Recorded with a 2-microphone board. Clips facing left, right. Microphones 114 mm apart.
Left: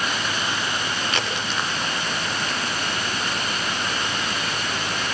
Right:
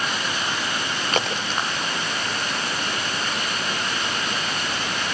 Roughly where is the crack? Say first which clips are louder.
Right 2 dB; right.